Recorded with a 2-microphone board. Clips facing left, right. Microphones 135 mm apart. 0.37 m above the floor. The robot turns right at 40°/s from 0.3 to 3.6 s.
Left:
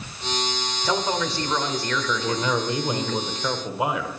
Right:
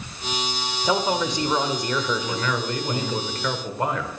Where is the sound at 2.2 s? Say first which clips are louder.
Left 2 dB; 25° left (ahead or behind), 0.9 m; by 4.2 s 5° left (ahead or behind), 0.9 m.